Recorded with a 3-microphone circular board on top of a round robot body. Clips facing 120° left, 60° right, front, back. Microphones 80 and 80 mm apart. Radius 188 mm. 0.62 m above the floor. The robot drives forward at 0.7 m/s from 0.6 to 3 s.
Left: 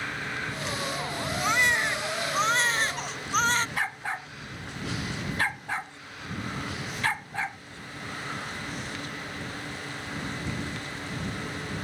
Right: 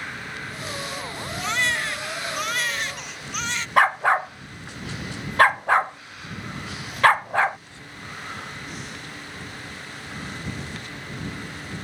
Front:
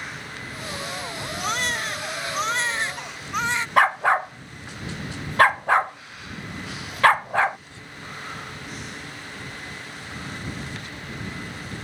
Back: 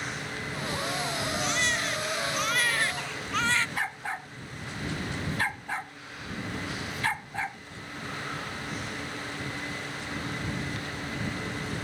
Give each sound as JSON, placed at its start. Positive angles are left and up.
{"t": 1.4, "sound": "a baby crying", "azimuth_deg": 45}
{"t": 3.8, "sound": "a dog barking", "azimuth_deg": -30}